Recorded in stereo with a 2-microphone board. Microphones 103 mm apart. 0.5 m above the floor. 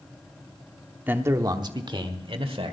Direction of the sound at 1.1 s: 15° right (ahead or behind).